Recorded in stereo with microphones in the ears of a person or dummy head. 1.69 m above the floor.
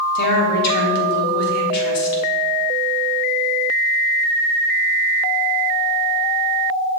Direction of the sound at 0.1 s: 55° left (ahead or behind).